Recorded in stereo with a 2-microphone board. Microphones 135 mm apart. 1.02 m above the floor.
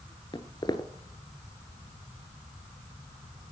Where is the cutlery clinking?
No cutlery clinking in this recording.